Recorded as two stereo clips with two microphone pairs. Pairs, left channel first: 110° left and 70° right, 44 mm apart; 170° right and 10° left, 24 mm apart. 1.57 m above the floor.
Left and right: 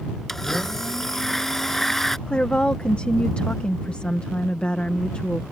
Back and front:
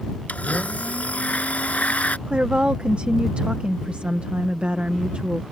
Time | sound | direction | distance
0.3 | a blender | 170° right | ?
2.3 | a woman speaking | 45° left | ?